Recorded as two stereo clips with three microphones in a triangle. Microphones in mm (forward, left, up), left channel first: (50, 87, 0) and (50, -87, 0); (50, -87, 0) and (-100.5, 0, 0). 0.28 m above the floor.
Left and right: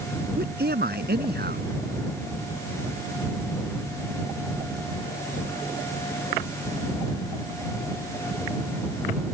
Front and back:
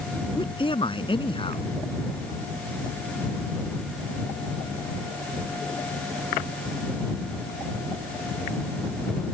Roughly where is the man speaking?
Right.